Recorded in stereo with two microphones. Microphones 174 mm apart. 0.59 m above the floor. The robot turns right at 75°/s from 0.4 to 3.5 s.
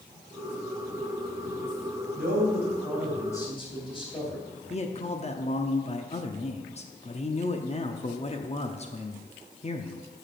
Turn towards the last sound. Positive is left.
turn(degrees=35)  # may be behind; listen again after turning